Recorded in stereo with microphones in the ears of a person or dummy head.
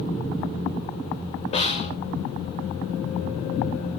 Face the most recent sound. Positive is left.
turn(degrees=35)  # may be behind; listen again after turning